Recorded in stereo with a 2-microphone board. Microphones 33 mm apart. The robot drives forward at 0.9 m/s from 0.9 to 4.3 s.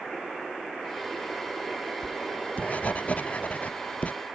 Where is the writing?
45° left (ahead or behind); by 4.1 s 50° left (ahead or behind).